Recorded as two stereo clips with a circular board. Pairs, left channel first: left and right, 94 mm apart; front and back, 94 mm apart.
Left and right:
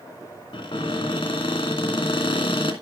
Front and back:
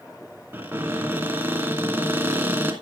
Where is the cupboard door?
115° left, 2.5 m.